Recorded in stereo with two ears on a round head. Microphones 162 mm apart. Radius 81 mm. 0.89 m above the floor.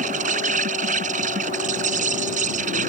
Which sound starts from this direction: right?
An insect, at 0.0 s.